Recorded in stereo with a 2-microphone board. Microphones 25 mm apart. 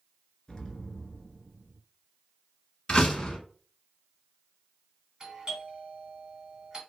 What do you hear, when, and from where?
0.5 s an explosion: 25° left (ahead or behind), 0.7 m
2.9 s a door slam: 35° left (ahead or behind), 1.1 m
5.2 s a doorbell: 20° right (ahead or behind), 1.5 m